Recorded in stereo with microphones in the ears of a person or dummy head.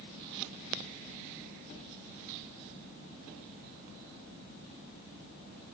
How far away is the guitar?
I don't hear a guitar.